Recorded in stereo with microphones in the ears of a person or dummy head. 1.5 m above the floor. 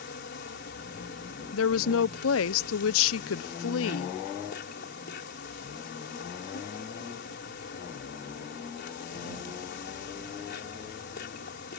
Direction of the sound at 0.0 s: 55° left (ahead or behind).